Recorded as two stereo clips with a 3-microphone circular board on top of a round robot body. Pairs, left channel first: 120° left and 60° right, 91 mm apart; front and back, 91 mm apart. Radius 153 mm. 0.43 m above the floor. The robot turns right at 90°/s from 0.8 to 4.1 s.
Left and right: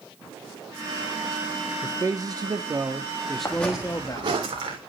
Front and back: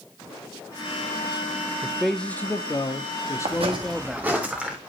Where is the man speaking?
110° right, 0.9 m; by 4.3 s 95° left, 0.9 m.